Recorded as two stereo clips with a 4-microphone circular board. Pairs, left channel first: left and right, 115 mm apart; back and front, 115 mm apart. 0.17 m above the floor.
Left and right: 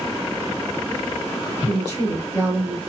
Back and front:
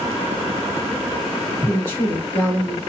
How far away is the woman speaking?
About 1.3 m.